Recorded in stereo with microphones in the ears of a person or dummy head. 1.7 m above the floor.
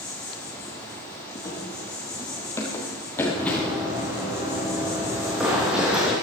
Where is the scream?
I don't hear a scream.